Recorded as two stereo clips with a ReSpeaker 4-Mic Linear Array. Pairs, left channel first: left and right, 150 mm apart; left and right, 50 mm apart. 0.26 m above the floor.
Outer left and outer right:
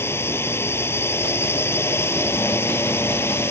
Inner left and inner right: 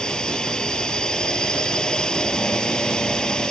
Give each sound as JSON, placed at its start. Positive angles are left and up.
{"t": 0.0, "sound": "a drone", "side_deg": 15}